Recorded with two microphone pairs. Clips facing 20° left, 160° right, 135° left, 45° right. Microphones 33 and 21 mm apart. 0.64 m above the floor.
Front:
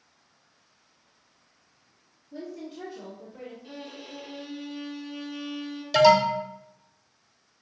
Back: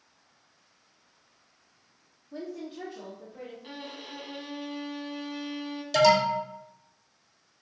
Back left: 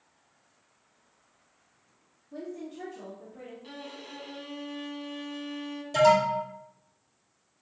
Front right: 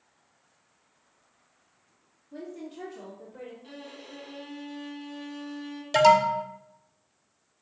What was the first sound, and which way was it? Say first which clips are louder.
A woman speaking: even, back left 1 dB; 135° right.